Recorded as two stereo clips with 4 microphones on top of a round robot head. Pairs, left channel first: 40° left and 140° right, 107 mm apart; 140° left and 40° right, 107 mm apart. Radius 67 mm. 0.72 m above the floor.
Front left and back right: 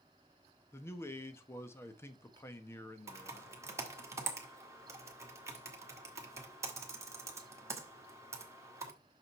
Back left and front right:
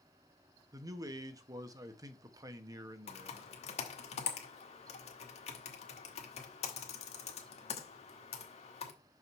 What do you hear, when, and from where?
0.7 s a man speaking: 15° right, 1.0 m
3.1 s typing on a keyboard: 155° left, 1.7 m